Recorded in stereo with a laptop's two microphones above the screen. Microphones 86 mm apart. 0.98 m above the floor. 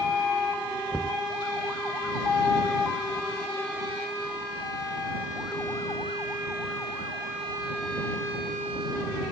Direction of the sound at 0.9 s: 10° left (ahead or behind).